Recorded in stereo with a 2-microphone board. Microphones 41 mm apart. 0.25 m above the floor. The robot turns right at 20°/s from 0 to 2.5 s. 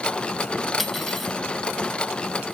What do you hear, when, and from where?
0.8 s cutlery clinking: 5° right (ahead or behind), 0.6 m; by 1.3 s 5° left (ahead or behind), 0.6 m